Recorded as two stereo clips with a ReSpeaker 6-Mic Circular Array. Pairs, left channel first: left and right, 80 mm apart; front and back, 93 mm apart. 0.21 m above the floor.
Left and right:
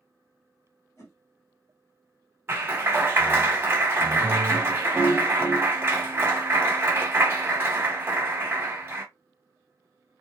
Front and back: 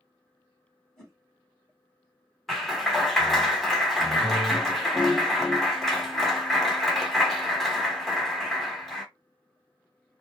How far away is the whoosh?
About 1.4 m.